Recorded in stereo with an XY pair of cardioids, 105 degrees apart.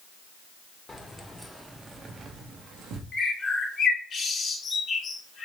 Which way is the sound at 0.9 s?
15° left.